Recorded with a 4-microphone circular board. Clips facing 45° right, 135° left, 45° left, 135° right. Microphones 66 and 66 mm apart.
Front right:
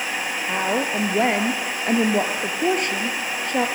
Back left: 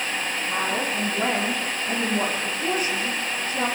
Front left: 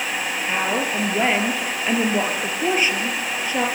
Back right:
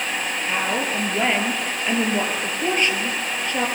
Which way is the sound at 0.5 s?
35° right.